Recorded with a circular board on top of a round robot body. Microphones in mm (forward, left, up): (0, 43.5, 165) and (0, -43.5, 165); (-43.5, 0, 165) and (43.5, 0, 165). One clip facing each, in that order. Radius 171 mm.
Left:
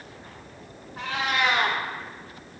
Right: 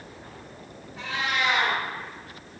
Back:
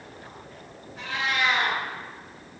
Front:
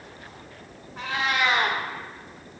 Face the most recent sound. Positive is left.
turn(degrees=45)